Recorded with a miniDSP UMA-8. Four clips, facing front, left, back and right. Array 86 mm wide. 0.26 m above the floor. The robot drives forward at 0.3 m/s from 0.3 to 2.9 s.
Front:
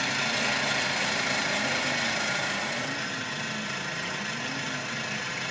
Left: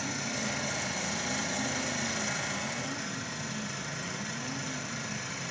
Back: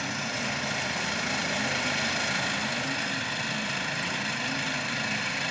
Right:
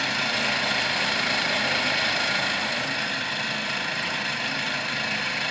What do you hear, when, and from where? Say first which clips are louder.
0.0 s an engine running: right 8 dB, front 3 dB; 70° right, 1.8 m; by 5.5 s 110° right, 1.8 m